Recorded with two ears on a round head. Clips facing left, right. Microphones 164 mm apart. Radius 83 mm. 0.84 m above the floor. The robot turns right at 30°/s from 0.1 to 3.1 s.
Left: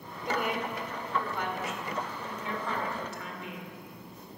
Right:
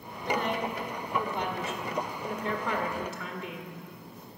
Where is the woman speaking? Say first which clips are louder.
Right 2 dB; 165° left, 2.5 m; by 3.7 s 110° right, 2.5 m.